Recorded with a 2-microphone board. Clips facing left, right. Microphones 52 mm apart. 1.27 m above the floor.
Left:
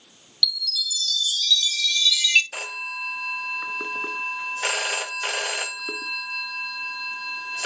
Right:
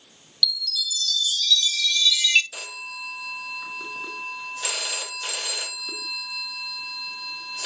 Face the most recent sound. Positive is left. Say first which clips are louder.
# left 5 dB
turn(degrees=40)  # may be behind; listen again after turning